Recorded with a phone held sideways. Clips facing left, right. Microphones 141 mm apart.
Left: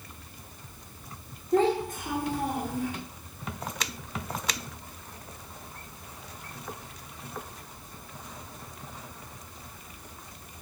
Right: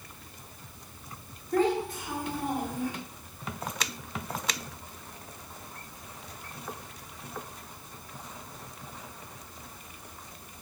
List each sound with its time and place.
1.5 s a child speaking: 20° left (ahead or behind), 1.1 m; by 2.9 s 75° left (ahead or behind), 1.7 m